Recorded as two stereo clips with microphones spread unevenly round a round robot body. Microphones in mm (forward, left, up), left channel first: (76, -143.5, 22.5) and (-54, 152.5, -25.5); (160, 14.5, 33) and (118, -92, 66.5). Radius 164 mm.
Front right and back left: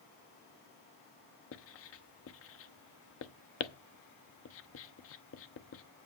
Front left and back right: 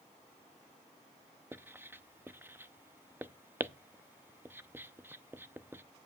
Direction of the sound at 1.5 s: 25° right.